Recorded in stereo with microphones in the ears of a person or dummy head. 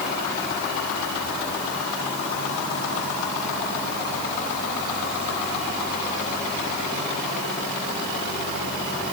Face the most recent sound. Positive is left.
No sound to turn to.